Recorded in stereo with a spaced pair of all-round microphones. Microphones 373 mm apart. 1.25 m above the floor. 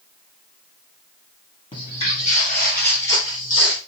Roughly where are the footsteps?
Centre.